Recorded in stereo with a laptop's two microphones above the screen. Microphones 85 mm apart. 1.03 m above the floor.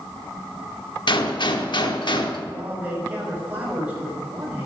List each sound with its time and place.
1.1 s a gunshot: 60° left (ahead or behind), 0.9 m
2.5 s a man speaking: 20° right (ahead or behind), 5.5 m